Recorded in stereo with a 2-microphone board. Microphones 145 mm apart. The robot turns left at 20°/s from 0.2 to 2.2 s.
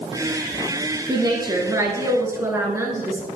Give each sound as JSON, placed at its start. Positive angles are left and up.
{"t": 1.1, "sound": "a woman speaking", "side_deg": -25, "distance_m": 1.2}